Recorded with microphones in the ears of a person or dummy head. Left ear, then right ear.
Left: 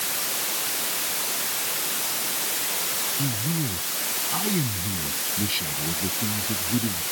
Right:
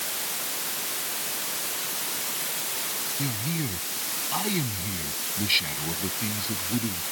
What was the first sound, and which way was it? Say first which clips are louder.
A man speaking: left 2 dB; 25° right (ahead or behind).